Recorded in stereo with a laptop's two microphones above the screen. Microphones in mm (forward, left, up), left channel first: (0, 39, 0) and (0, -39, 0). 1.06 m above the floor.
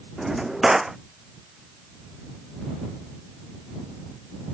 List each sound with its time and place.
0.2 s a drawer: 5° right (ahead or behind)